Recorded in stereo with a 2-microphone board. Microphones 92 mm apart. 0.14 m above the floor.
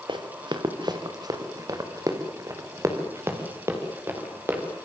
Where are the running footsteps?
60° right (ahead or behind), 3 m; by 4.6 s 25° right (ahead or behind), 5.5 m.